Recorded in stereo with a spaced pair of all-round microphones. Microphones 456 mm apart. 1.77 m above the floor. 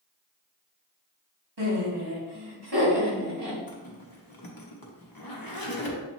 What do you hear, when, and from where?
1.6 s laughter: 60° right (ahead or behind), 1.4 m; by 3.6 s 55° right (ahead or behind), 2.5 m
3.7 s a zipper: 50° left (ahead or behind), 0.8 m